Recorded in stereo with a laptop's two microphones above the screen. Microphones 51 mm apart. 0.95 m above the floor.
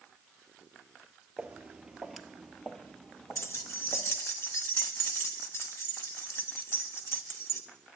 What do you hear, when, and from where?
1.4 s footsteps: 25° right (ahead or behind), 1.0 m; by 4.2 s 30° left (ahead or behind), 1.4 m
3.4 s keys jangling: 55° left (ahead or behind), 1.0 m